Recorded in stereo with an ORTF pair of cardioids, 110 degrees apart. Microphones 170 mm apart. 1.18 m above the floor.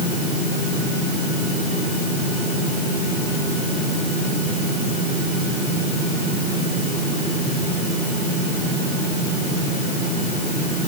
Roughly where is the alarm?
No alarm in this recording.